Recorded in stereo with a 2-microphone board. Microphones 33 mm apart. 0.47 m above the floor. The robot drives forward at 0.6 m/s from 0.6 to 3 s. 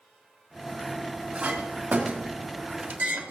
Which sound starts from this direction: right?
A clink, at 1.4 s.